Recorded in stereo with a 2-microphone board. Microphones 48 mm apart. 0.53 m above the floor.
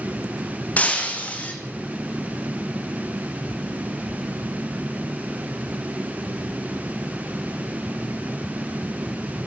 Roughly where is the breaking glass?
Left.